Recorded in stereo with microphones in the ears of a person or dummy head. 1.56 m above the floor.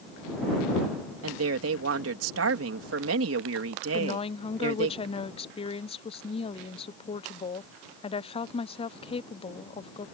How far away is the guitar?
I don't hear a guitar.